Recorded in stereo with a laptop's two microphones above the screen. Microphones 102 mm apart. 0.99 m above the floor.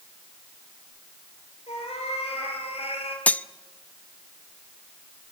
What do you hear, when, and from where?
1.7 s a cat meowing: 85° left, 5.5 m; by 3.2 s 80° left, 4.5 m
3.3 s cutlery clinking: 15° left (ahead or behind), 0.6 m